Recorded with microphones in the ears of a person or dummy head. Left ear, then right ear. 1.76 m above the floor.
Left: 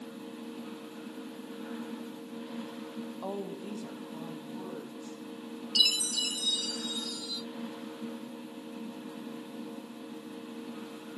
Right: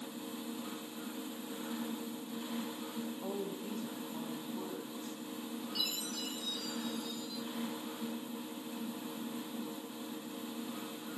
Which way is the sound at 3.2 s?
35° left (ahead or behind).